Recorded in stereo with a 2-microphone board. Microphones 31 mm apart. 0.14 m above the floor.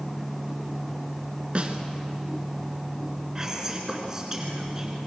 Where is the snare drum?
40° right (ahead or behind), 2 m.